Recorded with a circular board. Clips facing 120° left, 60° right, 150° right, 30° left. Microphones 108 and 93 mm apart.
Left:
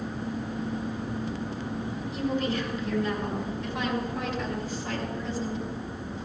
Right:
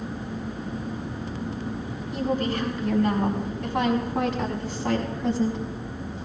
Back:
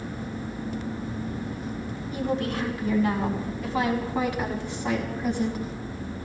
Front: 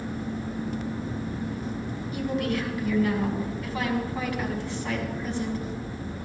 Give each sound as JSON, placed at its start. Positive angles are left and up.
{"t": 2.1, "sound": "a woman speaking", "azimuth_deg": -95, "distance_m": 5.5}